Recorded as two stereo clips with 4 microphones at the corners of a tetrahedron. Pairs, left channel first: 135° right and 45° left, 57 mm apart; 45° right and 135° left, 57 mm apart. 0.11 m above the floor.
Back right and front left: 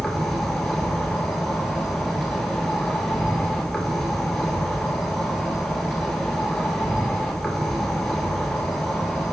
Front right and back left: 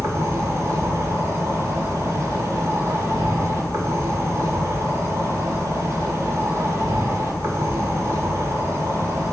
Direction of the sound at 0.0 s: 140° left.